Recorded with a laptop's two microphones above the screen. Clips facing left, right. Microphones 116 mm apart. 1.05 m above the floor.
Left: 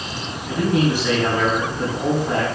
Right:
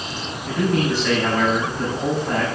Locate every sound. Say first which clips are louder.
0.5 s a man speaking: left 1 dB; 5° left (ahead or behind), 6.5 m